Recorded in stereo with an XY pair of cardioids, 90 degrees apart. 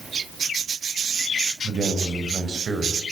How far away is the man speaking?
About 5.5 m.